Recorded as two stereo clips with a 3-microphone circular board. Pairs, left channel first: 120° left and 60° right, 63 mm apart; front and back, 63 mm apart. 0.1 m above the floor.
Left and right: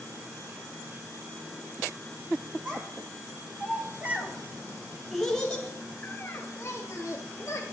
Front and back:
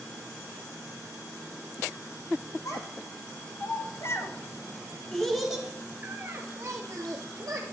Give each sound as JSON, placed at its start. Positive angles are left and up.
{"t": 2.6, "sound": "a child speaking", "azimuth_deg": -10, "distance_m": 2.0}